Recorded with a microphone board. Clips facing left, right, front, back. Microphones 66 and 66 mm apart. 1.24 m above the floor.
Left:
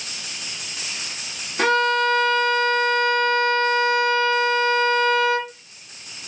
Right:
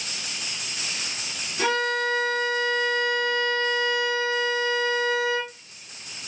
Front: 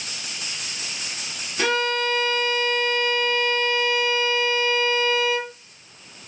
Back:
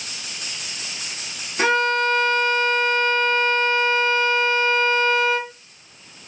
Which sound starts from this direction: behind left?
A violin, at 1.6 s.